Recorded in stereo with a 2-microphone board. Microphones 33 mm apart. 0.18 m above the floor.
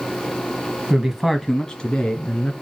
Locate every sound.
0.9 s a man speaking: 20° right (ahead or behind), 1.0 m; by 2.5 s 40° left (ahead or behind), 1.7 m